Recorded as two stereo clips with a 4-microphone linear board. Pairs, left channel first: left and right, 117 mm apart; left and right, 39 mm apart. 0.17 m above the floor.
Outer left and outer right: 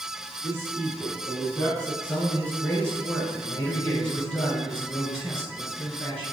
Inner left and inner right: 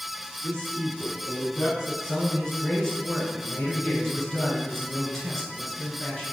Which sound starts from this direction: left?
A man speaking, at 0.4 s.